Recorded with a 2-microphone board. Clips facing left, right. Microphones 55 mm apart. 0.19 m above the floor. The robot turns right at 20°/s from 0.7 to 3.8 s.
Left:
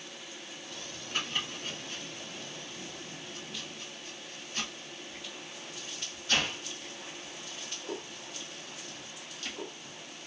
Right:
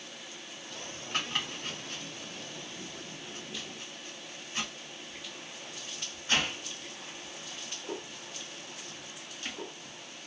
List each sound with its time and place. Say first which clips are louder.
1.1 s chopping: right 1 dB; 60° right (ahead or behind), 1.5 m; by 9.9 s 25° right (ahead or behind), 1.5 m